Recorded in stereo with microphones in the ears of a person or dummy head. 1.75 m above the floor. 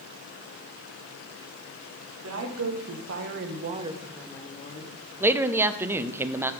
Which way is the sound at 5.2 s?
10° right (ahead or behind).